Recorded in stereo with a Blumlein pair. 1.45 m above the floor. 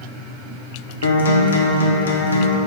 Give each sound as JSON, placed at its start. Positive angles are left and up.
{"t": 1.0, "sound": "a guitar", "azimuth_deg": 65, "distance_m": 1.0}